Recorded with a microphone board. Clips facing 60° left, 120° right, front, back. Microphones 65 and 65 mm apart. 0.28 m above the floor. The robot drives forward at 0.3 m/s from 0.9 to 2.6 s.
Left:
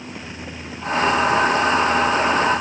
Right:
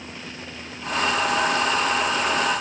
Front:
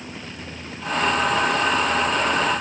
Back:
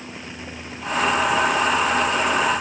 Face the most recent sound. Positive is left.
No sound to turn to.